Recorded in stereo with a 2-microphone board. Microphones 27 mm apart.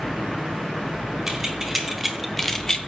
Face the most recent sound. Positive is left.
turn(degrees=35)  # may be behind; listen again after turning